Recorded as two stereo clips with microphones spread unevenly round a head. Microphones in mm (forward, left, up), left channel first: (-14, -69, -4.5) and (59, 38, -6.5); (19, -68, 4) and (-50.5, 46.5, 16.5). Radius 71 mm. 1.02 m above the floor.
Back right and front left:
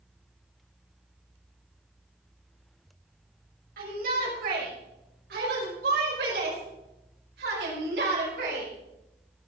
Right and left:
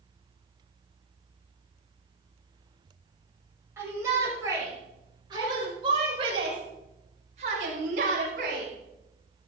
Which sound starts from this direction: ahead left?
A shout, at 3.8 s.